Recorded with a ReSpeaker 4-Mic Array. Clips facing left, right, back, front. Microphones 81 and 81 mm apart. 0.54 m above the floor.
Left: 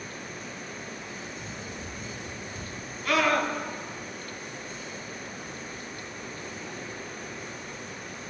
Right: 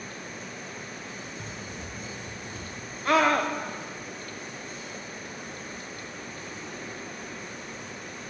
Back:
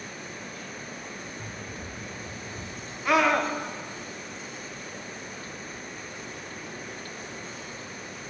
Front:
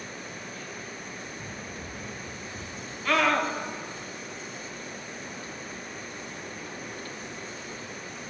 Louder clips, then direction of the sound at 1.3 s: Even, even; 105° right.